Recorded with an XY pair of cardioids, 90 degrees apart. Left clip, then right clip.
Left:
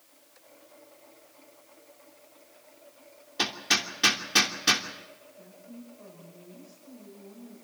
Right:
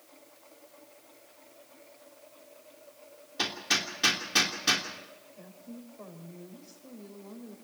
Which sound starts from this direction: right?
A woman speaking, at 5.4 s.